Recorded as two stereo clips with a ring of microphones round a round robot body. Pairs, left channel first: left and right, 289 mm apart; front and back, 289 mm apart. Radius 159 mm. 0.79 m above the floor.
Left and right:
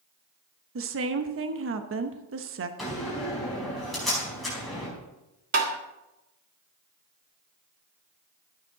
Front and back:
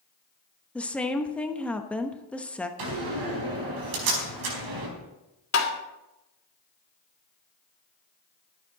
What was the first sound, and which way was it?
A woman speaking, 85° right.